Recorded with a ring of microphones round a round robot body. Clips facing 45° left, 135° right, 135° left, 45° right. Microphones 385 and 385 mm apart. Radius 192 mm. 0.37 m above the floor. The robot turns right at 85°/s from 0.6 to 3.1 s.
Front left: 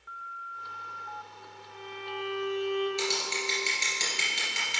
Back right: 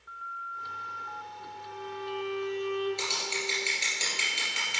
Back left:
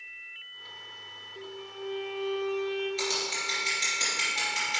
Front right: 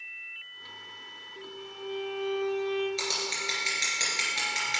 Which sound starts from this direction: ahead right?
Scissors, at 3.0 s.